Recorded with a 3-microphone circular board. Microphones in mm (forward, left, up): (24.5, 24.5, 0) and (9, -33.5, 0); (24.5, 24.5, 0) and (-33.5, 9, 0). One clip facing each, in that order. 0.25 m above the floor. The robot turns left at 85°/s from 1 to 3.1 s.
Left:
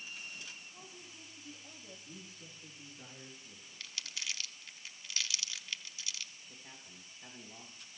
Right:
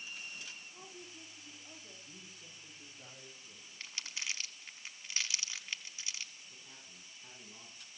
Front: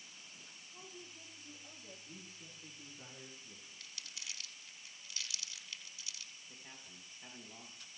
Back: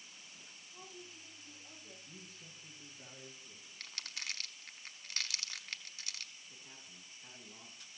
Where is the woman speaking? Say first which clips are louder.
Right 2 dB, back 1 dB; 135° left, 6 m; by 1.9 s 55° left, 6 m.